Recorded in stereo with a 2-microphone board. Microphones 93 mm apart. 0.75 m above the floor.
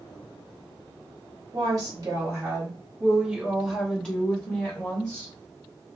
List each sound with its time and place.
1.5 s a woman speaking: 45° right (ahead or behind), 1.3 m; by 5.3 s 25° left (ahead or behind), 1.9 m